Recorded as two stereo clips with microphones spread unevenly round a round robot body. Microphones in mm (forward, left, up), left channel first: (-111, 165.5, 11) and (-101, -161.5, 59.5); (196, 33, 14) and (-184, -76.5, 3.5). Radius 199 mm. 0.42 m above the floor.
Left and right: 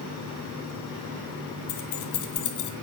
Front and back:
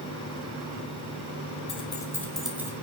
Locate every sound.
1.7 s keys jangling: 90° left, 3 m; by 2.7 s 115° left, 2.5 m